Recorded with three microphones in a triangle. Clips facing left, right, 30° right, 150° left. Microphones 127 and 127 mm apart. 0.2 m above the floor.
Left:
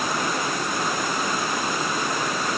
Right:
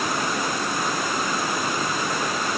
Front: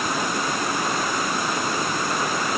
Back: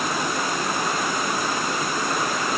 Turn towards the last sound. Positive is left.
No sound to turn to.